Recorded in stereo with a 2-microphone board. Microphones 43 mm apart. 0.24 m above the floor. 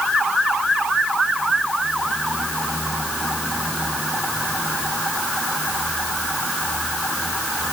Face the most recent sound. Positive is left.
No sound to turn to.